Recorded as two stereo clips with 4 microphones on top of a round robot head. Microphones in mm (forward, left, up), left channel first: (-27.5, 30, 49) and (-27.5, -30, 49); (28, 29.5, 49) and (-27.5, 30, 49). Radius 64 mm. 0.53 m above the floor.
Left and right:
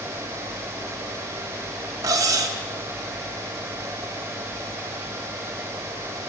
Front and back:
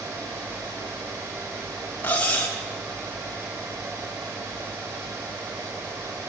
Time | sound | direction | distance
2.0 | cutlery clinking | 65° right | 2 m